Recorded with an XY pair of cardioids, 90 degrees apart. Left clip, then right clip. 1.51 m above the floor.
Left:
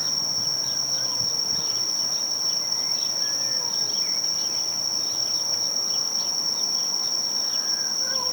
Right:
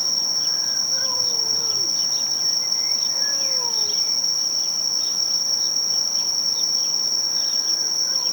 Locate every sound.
0.0 s an insect: 30° right